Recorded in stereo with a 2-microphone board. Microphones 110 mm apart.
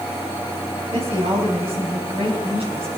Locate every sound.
0.9 s a woman speaking: 60° right (ahead or behind), 5 m